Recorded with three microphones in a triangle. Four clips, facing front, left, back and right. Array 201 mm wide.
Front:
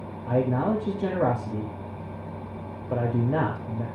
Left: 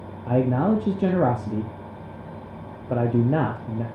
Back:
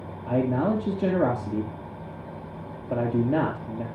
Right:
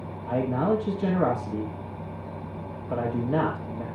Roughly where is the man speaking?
Left.